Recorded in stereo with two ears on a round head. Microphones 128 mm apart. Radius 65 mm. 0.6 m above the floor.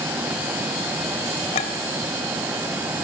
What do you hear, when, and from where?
1.5 s a clink: 45° left (ahead or behind), 2 m